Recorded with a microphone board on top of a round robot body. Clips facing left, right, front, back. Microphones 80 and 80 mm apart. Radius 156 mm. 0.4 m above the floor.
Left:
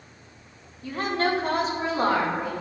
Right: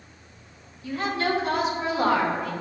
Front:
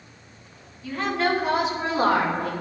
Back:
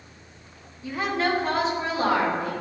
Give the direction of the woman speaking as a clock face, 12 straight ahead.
8 o'clock.